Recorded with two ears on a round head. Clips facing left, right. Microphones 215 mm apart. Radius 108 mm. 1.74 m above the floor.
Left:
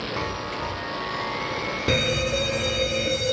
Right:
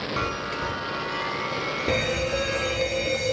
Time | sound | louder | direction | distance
0.2 | a chime | even | 15° right (ahead or behind) | 0.9 m
1.9 | a fire alarm | left 1 dB | 15° left (ahead or behind) | 1.1 m